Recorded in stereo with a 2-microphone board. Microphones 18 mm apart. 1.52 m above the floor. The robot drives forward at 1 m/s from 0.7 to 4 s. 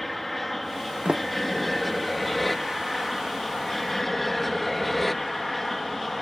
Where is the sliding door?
65° right (ahead or behind); by 2.1 s 60° right (ahead or behind).